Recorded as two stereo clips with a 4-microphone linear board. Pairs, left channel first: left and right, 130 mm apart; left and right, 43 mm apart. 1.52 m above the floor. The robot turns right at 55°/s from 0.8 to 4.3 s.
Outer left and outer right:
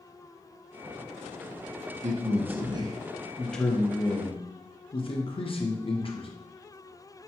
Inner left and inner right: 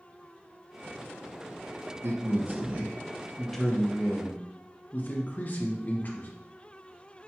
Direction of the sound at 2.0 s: 75° right.